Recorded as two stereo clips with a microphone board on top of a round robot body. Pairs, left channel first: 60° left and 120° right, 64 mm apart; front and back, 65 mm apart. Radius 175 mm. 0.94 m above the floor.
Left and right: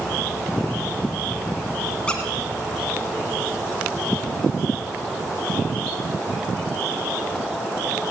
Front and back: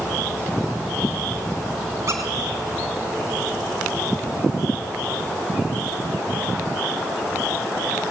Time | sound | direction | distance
2.1 | a squeak | 135° left | 1.4 m